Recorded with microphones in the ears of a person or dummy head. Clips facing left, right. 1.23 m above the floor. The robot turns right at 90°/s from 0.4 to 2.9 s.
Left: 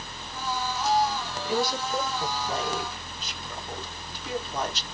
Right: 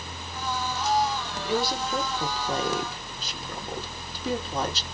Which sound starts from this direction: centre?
A woman speaking, at 1.4 s.